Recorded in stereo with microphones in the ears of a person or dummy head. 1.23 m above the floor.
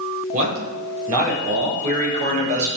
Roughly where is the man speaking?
Right.